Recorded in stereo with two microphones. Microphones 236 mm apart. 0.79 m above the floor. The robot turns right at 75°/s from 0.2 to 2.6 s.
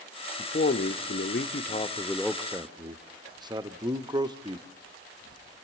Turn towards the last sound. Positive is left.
turn(degrees=-160)